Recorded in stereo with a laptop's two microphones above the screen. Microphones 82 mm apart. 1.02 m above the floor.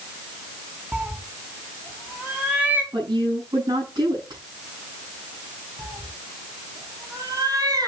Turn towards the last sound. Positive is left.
turn(degrees=-55)  # may be behind; listen again after turning